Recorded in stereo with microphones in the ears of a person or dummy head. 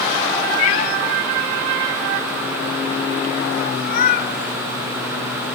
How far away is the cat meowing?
About 1.0 m.